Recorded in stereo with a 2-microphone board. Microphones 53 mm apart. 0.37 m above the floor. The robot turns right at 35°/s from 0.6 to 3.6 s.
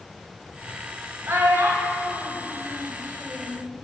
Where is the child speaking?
50° right (ahead or behind), 1.7 m; by 3.6 s 25° right (ahead or behind), 1.7 m.